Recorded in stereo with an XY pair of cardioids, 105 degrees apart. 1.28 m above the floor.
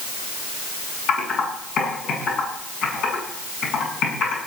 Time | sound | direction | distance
1.1 | typing on a keyboard | 70° left | 7.5 m